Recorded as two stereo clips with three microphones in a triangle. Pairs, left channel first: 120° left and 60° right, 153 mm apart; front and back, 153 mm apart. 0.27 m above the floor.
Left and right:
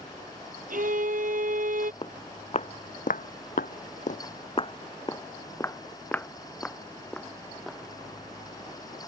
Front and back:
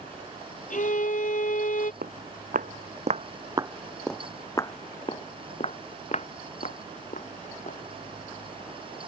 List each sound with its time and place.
0.7 s a violin: 35° right
2.0 s footsteps: 170° left; by 7.8 s 35° left